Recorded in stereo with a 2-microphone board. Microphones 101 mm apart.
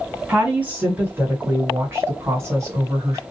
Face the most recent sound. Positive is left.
turn(degrees=-30)  # may be behind; listen again after turning